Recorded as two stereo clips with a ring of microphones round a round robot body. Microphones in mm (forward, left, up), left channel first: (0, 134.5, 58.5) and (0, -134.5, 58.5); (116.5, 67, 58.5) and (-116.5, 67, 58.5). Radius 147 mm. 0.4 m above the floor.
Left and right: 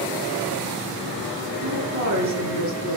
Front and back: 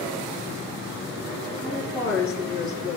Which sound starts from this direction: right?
A woman speaking, at 1.6 s.